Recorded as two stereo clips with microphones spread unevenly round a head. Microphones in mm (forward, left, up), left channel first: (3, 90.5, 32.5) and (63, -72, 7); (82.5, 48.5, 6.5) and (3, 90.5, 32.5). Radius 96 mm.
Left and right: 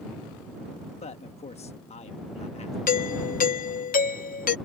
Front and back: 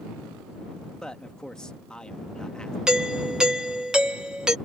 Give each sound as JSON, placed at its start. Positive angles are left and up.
{"t": 1.0, "sound": "a man speaking", "azimuth_deg": 60}
{"t": 2.9, "sound": "a doorbell", "azimuth_deg": 70}